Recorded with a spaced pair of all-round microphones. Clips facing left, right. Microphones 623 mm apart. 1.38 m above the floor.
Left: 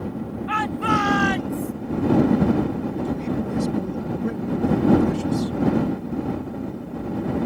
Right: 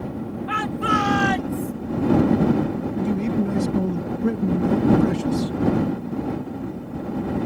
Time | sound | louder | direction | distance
0.5 | a shout | left 1 dB | 60° right (ahead or behind) | ?
3.0 | a man speaking | right 3 dB | 70° right (ahead or behind) | ?